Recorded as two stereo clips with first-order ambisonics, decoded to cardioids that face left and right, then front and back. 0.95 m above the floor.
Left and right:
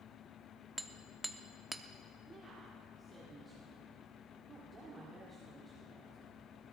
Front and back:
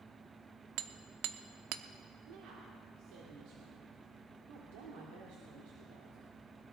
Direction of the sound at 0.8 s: 175° right.